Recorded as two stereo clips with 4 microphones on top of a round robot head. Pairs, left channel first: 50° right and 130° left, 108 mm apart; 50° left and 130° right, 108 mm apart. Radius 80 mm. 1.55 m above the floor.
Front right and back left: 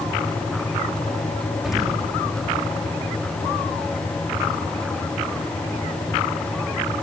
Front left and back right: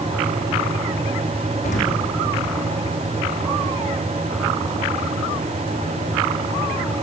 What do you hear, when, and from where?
1.6 s an explosion: 45° left, 3.5 m